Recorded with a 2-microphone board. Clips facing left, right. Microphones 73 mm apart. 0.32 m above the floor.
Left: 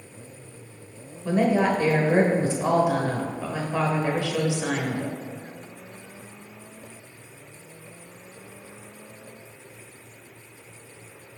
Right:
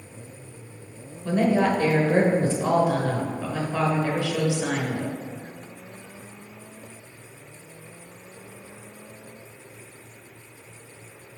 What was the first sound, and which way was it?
A woman speaking, 10° left (ahead or behind).